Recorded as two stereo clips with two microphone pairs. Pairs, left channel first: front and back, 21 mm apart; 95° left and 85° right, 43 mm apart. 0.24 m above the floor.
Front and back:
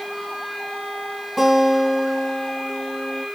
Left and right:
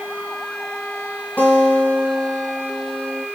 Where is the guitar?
80° left, 3 m.